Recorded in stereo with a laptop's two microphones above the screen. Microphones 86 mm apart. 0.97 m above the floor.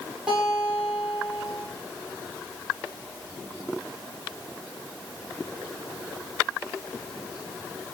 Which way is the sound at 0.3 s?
15° right (ahead or behind).